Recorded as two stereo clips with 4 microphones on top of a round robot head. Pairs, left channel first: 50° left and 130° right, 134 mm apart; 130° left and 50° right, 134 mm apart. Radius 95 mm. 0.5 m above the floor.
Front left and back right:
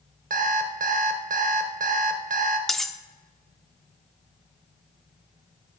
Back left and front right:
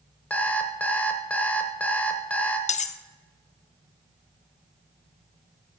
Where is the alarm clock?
150° right, 0.9 m.